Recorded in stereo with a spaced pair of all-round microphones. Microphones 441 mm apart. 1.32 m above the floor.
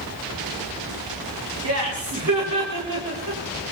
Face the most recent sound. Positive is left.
turn(degrees=-55)  # may be behind; listen again after turning